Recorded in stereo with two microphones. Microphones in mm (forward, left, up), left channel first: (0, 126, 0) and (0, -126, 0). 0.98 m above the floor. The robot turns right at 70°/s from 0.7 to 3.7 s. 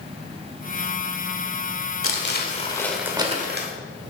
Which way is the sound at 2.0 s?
115° left.